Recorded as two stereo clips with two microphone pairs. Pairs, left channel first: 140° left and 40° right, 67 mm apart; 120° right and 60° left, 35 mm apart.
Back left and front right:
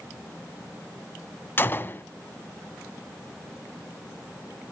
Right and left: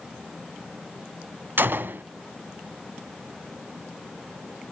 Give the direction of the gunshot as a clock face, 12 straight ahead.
9 o'clock.